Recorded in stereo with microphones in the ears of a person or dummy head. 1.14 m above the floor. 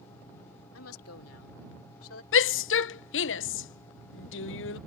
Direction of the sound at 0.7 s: 75° left (ahead or behind).